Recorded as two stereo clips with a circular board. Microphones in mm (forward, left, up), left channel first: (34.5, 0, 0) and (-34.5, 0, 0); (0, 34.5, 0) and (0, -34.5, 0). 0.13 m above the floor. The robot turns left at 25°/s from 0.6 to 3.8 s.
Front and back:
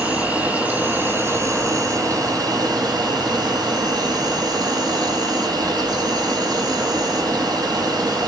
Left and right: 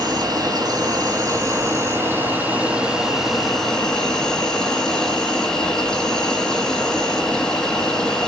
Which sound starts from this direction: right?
An insect, at 0.0 s.